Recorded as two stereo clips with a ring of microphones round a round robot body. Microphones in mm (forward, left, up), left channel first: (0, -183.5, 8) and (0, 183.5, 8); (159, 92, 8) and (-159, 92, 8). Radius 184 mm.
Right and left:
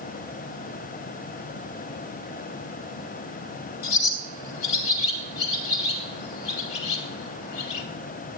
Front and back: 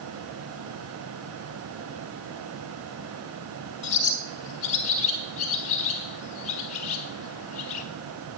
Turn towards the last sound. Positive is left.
turn(degrees=-75)